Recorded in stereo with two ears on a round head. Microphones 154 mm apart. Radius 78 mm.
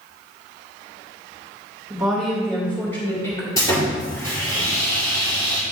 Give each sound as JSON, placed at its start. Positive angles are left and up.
{"t": 1.9, "sound": "a woman speaking", "side_deg": -10, "distance_m": 2.0}
{"t": 3.6, "sound": "sawing", "side_deg": 20, "distance_m": 2.5}